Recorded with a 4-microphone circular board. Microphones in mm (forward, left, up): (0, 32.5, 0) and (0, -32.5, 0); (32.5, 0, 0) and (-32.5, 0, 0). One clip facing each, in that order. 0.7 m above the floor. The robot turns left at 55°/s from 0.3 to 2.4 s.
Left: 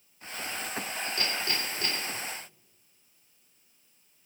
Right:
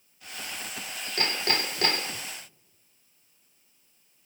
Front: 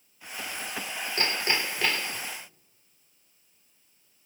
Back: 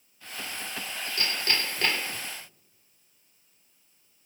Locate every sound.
1.2 s hammering: 50° right, 1.3 m; by 2.2 s 110° right, 1.3 m